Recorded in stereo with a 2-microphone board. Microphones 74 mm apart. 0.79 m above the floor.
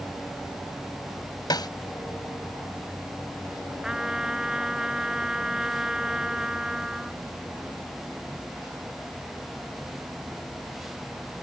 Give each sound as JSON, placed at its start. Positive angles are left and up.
{"t": 1.5, "sound": "a snare drum", "side_deg": 70}
{"t": 3.8, "sound": "a trumpet", "side_deg": -10}